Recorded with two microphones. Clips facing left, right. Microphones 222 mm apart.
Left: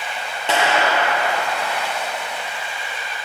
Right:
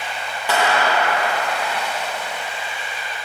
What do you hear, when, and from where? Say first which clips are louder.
0.5 s a clap: even; 25° left (ahead or behind), 1.8 m